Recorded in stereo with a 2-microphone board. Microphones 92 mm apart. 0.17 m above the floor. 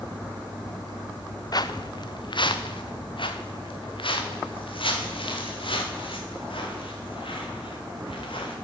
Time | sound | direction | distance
1.5 | footsteps | 45° left (ahead or behind) | 0.9 m